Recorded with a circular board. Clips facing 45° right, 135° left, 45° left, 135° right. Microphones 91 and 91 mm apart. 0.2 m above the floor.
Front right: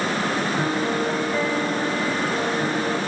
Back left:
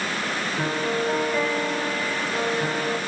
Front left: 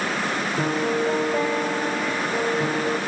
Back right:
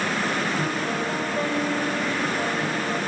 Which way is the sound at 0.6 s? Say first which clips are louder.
Front right 2 dB, front left 3 dB; 40° left.